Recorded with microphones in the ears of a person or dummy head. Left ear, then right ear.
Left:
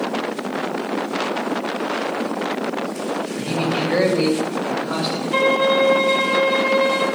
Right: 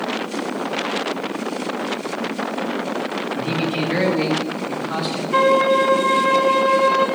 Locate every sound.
3.3 s a man speaking: centre (ahead or behind), 2 m; by 5.2 s 5° left (ahead or behind), 3 m
5.3 s a violin: 15° left (ahead or behind), 3 m